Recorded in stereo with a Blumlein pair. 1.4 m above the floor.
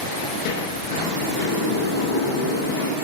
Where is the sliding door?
45° left, 10 m.